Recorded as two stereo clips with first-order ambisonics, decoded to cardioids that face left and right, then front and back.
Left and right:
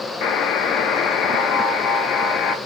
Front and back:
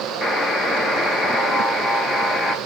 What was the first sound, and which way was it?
A buzzer, 70° left.